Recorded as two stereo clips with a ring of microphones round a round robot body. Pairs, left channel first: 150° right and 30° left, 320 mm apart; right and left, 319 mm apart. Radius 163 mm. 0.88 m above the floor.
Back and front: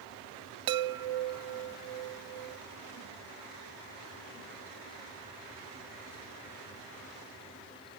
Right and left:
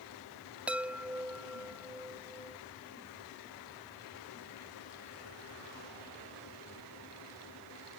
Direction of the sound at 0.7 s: 5° left.